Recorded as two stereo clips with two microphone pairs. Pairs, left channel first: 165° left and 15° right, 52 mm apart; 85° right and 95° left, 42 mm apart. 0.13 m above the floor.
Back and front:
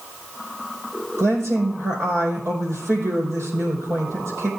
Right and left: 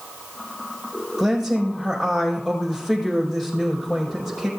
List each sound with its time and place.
1.2 s a woman speaking: straight ahead, 5 m